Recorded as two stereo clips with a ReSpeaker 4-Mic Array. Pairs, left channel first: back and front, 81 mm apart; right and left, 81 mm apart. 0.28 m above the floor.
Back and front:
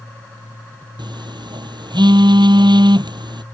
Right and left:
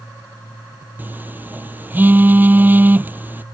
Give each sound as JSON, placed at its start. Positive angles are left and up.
{"t": 1.0, "sound": "a phone buzzing", "azimuth_deg": 20}